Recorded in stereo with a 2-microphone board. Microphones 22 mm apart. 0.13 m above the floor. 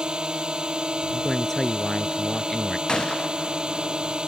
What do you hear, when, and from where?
0.0 s a drone: 40° right (ahead or behind)
1.1 s a man speaking: 15° left (ahead or behind)
2.9 s a gunshot: 30° left (ahead or behind)